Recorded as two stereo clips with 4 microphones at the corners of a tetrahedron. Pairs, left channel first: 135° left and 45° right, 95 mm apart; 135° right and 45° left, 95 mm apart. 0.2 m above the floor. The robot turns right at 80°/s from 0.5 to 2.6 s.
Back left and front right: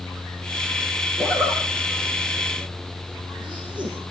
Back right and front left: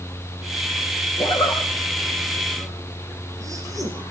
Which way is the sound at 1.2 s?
120° right.